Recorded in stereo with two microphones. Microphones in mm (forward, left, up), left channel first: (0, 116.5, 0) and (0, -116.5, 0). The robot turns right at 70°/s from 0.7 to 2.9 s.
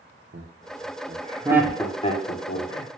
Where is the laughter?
60° right (ahead or behind), 0.7 m; by 2.9 s 70° left (ahead or behind), 0.7 m.